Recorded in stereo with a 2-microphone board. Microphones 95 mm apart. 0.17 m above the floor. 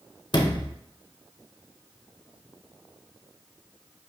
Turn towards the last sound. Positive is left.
turn(degrees=50)  # may be behind; listen again after turning